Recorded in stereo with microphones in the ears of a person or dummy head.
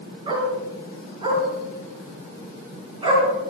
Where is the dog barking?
35° right (ahead or behind), 6 m.